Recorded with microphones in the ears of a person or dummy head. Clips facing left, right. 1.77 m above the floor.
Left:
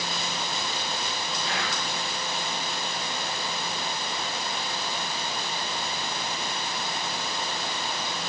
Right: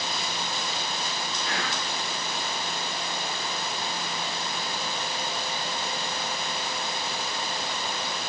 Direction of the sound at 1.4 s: 40° right (ahead or behind).